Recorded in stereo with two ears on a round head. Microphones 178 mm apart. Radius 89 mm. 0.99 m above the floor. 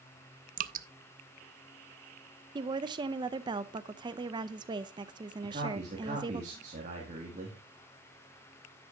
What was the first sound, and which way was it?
Dripping, 40° right (ahead or behind).